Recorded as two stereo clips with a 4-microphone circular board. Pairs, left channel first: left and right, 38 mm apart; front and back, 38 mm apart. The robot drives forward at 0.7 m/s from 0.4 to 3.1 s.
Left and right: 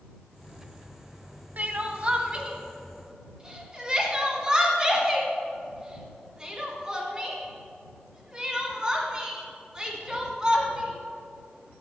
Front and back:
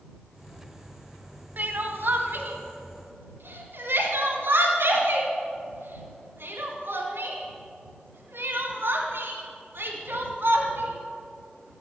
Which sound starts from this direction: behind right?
Crying, at 1.6 s.